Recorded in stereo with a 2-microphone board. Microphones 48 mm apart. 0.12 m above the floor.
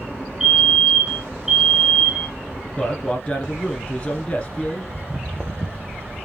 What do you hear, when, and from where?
0.4 s a fire alarm: 10° right (ahead or behind), 2.5 m
2.8 s a man speaking: 25° left (ahead or behind), 1.6 m
4.9 s footsteps: 15° right (ahead or behind), 0.5 m; by 6.0 s 20° right (ahead or behind), 1.2 m